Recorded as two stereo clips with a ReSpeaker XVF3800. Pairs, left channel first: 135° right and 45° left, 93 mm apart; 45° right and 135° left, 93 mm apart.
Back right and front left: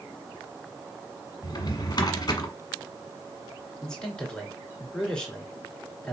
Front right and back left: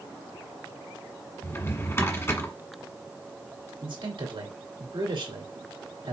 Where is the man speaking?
145° left, 2.5 m.